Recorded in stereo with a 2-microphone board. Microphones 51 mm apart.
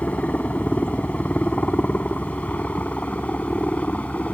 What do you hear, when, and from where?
0.0 s a helicopter: 25° left (ahead or behind)